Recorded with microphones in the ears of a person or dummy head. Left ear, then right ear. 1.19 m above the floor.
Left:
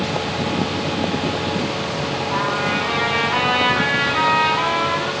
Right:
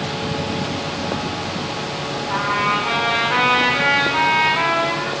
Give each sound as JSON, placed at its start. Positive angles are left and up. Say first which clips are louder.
{"t": 2.3, "sound": "a trumpet", "louder": "right 3 dB", "side_deg": -70, "distance_m": 7.0}